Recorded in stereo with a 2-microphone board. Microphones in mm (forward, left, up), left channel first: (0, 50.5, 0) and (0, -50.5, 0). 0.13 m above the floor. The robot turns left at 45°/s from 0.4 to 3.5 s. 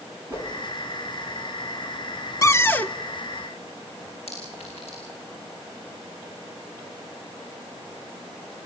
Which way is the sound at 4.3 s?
75° left (ahead or behind).